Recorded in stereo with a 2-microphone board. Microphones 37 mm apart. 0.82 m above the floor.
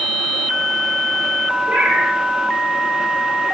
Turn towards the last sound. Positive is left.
turn(degrees=-60)  # may be behind; listen again after turning